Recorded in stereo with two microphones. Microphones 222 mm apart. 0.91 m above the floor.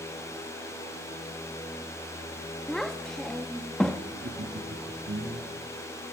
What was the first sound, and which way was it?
A child speaking, centre (ahead or behind).